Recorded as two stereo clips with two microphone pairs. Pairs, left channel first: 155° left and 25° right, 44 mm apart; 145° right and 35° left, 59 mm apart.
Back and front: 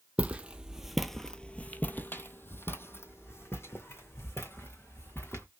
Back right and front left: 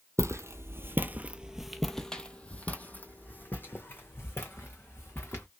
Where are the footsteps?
25° left, 0.8 m; by 5.5 s 170° left, 2.5 m.